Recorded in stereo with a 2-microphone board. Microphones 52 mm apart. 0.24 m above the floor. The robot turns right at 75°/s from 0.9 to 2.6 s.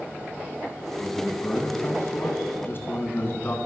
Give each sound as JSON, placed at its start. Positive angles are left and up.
{"t": 1.0, "sound": "a man speaking", "azimuth_deg": -5, "distance_m": 2.0}